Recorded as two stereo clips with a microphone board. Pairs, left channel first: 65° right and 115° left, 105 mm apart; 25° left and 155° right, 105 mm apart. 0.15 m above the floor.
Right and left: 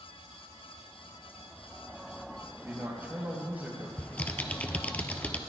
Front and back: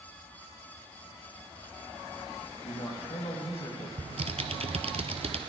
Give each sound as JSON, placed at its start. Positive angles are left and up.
{"t": 2.6, "sound": "a man speaking", "azimuth_deg": 40, "distance_m": 3.0}
{"t": 4.0, "sound": "typing on a keyboard", "azimuth_deg": -145, "distance_m": 0.8}